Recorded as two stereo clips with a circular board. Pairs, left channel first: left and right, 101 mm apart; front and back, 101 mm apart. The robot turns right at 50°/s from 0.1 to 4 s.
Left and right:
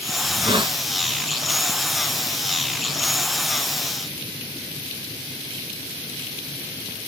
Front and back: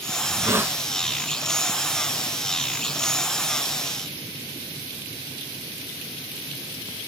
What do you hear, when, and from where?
0.2 s a hiss: 130° right, 0.9 m; by 0.8 s 105° right, 0.9 m